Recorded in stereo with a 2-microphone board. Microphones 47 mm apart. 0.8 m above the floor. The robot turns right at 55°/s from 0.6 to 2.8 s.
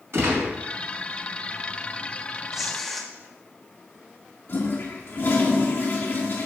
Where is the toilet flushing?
50° left (ahead or behind), 2 m.